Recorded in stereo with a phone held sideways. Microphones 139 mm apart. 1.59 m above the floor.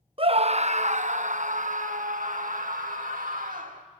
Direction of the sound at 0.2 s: 40° right (ahead or behind).